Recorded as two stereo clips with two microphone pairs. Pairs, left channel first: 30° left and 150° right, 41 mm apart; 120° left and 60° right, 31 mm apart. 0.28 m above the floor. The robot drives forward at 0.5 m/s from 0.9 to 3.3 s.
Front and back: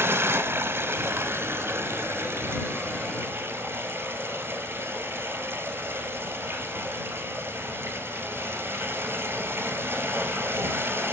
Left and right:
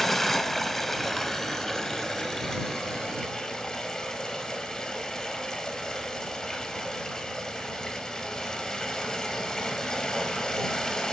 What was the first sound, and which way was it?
Running water, 155° right.